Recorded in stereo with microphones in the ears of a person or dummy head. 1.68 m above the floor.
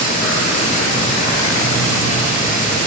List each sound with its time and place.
0.0 s an insect: 45° left (ahead or behind), 1.8 m